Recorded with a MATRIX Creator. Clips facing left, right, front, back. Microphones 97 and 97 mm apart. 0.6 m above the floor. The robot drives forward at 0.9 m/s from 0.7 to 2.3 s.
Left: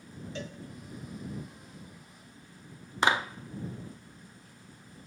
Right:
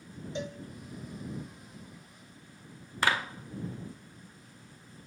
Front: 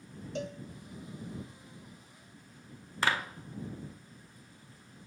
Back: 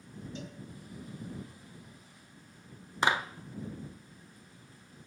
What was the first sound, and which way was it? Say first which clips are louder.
A cowbell: right 4 dB, front 9 dB; 20° right.